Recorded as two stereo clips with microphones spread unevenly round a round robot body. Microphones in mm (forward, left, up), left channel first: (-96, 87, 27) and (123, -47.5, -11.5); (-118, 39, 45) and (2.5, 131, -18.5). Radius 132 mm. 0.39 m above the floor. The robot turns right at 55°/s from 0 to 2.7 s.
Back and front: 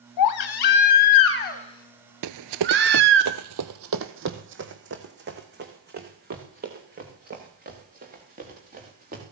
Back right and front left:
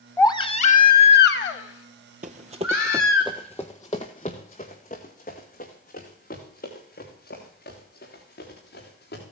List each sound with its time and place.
0.2 s a baby crying: 140° left, 0.9 m; by 3.2 s 85° right, 0.9 m
2.2 s running footsteps: 30° right, 0.5 m; by 9.2 s 95° right, 4 m